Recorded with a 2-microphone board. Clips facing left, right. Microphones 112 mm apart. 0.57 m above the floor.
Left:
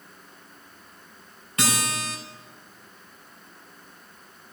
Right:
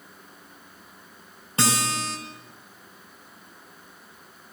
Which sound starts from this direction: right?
A guitar, at 1.6 s.